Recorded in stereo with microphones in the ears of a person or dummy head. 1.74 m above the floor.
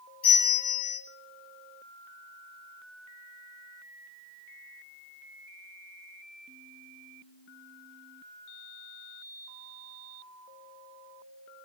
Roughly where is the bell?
Left.